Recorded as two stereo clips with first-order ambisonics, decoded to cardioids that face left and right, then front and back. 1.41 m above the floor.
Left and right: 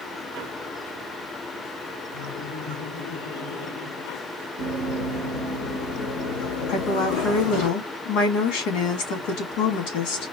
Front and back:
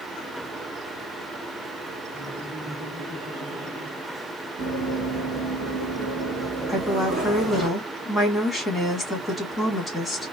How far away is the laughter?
About 2.5 m.